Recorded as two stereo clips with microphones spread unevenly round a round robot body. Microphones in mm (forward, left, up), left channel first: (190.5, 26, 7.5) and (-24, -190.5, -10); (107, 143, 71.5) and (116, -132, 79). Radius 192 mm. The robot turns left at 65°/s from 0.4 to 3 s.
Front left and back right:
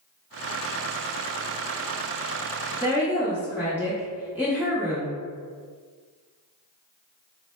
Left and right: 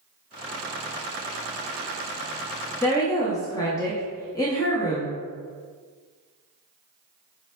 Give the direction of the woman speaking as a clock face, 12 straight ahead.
7 o'clock.